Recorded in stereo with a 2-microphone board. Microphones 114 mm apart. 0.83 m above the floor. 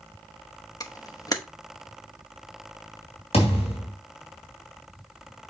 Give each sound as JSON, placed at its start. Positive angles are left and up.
{"t": 0.8, "sound": "a camera shutter", "side_deg": 35, "distance_m": 0.8}
{"t": 3.3, "sound": "a thud", "side_deg": 65, "distance_m": 2.5}